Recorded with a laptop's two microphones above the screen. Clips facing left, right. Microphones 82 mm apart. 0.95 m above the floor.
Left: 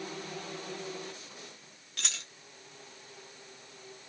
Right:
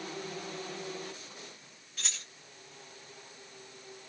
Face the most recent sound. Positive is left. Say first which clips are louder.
# left 2 dB
turn(degrees=70)  # may be behind; listen again after turning